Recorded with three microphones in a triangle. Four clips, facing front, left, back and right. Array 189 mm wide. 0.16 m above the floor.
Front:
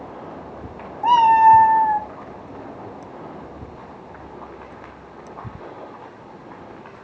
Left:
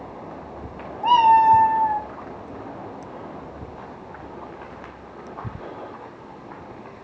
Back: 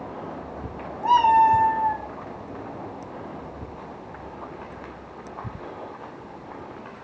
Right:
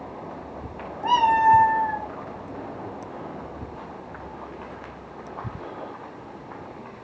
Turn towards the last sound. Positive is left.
turn(degrees=15)